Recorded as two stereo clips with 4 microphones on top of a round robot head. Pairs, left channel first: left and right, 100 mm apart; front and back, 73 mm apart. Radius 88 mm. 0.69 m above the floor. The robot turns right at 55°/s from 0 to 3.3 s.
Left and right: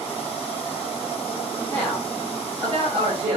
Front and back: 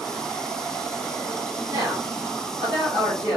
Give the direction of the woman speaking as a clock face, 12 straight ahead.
7 o'clock.